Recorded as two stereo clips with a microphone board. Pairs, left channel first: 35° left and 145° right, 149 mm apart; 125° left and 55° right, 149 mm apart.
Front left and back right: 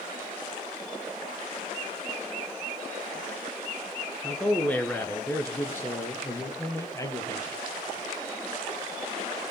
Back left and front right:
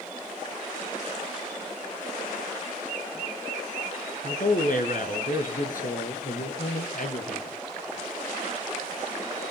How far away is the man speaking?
About 2.5 m.